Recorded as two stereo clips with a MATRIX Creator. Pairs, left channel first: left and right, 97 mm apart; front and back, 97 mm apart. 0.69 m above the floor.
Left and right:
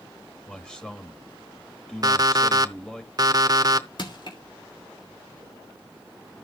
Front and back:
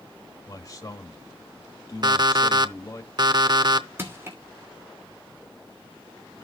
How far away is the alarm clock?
About 0.7 m.